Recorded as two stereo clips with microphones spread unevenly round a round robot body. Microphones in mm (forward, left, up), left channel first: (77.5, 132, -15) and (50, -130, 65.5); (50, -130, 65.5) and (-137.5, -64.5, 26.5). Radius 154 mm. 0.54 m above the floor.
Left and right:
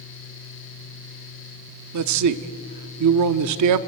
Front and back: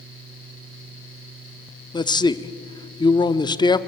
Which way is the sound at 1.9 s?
95° right.